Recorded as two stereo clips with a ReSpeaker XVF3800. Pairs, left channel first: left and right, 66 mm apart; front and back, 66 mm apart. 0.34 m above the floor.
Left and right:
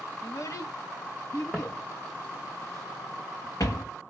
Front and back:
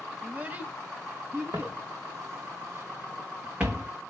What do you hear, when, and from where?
0.2 s a child speaking: 115° left, 0.8 m; by 1.8 s 120° left, 2.0 m
1.5 s footsteps: 170° left, 1.1 m; by 3.9 s 110° left, 1.9 m